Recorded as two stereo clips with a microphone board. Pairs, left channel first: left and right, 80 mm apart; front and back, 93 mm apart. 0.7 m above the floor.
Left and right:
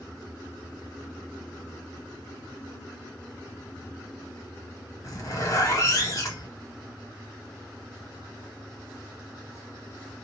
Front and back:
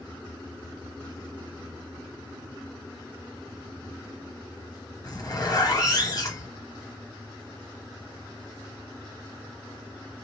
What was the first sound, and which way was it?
A zipper, 45° left.